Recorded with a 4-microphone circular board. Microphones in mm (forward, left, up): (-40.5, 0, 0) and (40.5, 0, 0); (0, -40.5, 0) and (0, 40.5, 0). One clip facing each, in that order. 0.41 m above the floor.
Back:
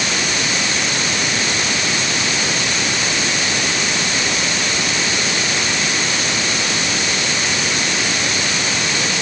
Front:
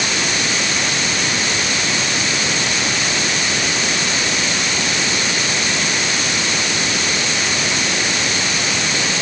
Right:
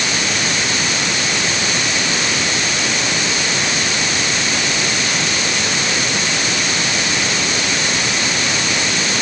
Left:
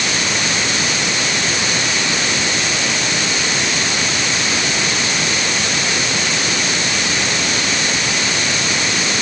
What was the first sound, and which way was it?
Only background noise.